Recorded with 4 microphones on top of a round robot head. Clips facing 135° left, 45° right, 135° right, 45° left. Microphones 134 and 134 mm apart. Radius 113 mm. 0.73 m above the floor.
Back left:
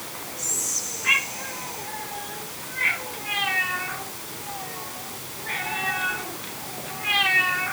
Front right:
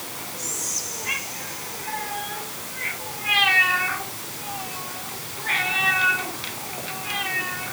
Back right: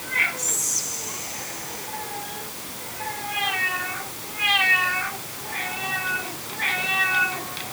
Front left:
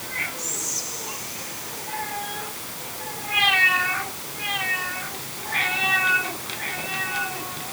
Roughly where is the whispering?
Behind.